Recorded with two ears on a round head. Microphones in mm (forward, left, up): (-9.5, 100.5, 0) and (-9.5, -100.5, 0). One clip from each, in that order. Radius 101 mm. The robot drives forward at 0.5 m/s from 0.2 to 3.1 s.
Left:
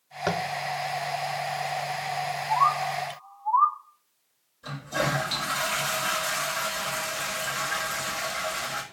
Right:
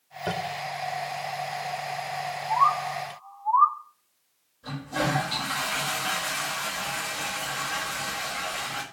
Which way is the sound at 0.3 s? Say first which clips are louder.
Left 2 dB; 60° left (ahead or behind).